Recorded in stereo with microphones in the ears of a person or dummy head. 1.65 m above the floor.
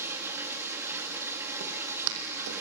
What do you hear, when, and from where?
0.0 s running water: 10° right (ahead or behind), 1.8 m
1.6 s footsteps: 65° right (ahead or behind), 4 m; by 2.6 s 70° right (ahead or behind), 5 m